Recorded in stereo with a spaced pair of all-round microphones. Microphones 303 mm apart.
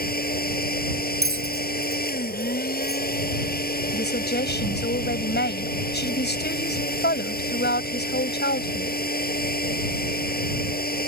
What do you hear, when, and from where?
0.0 s a machine running: 30° left (ahead or behind)
1.2 s a bell: 45° right (ahead or behind)
3.9 s a woman speaking: 35° left (ahead or behind)